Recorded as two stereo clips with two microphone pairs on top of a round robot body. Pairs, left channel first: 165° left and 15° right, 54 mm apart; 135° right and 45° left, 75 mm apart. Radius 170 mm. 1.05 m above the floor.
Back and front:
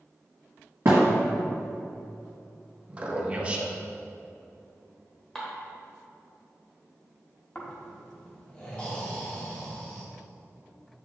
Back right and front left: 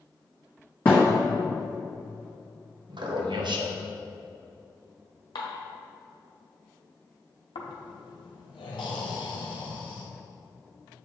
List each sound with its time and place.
0.8 s a thud: 75° right, 1.1 m
2.9 s a man speaking: 50° left, 1.3 m
5.3 s dishes clattering: 115° right, 1.2 m
7.5 s snoring: 125° right, 1.0 m